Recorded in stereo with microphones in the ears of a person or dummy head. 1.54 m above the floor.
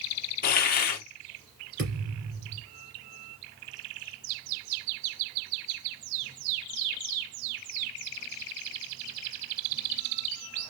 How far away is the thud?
About 3 m.